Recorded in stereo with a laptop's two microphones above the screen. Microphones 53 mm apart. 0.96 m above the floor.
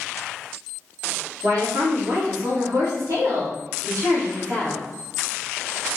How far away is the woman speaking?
About 2 m.